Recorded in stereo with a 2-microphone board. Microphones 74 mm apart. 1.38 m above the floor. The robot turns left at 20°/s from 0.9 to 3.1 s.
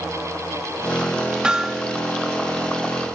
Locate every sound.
1.4 s hammering: 10° right (ahead or behind); by 1.8 s 5° right (ahead or behind)